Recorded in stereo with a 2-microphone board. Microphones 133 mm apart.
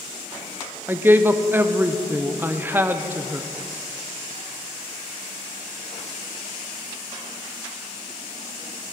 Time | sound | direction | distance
0.9 | a woman speaking | 15° right (ahead or behind) | 0.5 m